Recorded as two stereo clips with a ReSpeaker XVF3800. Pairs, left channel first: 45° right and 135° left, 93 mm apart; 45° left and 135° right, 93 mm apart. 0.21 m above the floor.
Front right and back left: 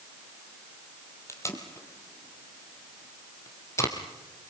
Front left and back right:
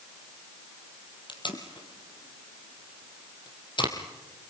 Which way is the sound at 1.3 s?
15° left.